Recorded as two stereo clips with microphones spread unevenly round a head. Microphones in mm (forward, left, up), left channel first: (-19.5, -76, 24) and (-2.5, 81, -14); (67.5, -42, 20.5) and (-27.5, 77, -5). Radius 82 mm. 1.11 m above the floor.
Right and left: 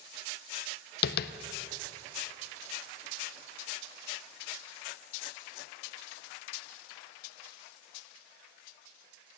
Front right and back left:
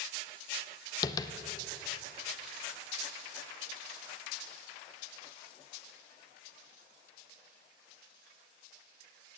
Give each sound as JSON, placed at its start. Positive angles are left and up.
{"t": 1.0, "sound": "tapping", "azimuth_deg": -125, "distance_m": 0.5}